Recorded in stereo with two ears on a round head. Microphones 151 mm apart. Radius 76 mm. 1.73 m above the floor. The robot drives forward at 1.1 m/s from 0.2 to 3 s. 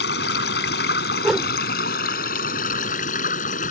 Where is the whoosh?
Centre (ahead or behind).